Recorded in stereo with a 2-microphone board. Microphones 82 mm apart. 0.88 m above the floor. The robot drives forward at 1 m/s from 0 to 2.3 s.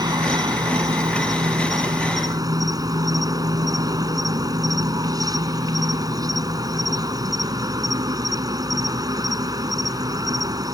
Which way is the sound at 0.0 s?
55° right (ahead or behind).